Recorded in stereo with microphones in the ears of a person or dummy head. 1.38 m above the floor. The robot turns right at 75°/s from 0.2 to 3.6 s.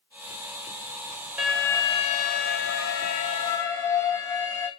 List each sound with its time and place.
1.4 s an alarm: 5° right, 1.2 m; by 4.7 s 160° left, 1.2 m